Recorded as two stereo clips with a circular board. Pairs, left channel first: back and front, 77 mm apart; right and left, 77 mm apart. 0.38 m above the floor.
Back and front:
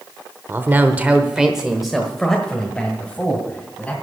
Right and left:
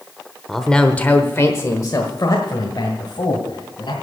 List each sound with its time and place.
0.5 s a man speaking: straight ahead, 1.0 m; by 3.9 s 105° right, 2.5 m